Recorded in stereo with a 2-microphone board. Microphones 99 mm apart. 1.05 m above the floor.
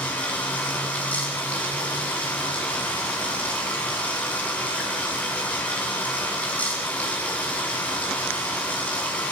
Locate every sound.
0.0 s running water: 15° left (ahead or behind), 9 m